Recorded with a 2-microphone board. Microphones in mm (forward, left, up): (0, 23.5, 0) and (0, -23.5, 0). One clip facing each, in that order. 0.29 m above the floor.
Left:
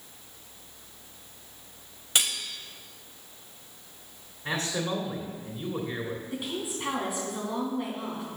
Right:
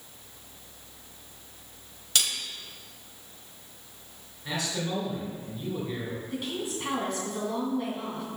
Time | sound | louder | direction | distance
2.1 | cutlery clinking | left 1 dB | 25° left (ahead or behind) | 0.8 m
4.5 | a man speaking | left 2 dB | 40° left (ahead or behind) | 2.5 m
6.3 | a woman speaking | right 1 dB | 10° left (ahead or behind) | 3 m